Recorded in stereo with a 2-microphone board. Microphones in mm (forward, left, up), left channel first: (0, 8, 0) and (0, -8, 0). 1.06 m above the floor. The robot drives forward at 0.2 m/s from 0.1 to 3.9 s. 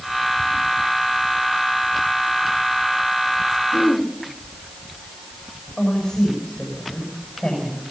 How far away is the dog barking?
No dog barking in this recording.